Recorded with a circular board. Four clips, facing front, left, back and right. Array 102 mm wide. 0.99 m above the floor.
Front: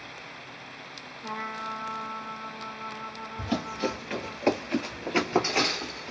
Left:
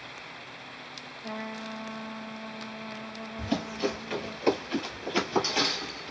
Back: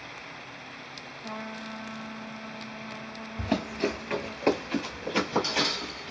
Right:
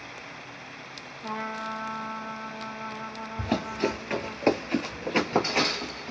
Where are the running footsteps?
135° right, 1.1 m; by 6.1 s 30° right, 1.4 m.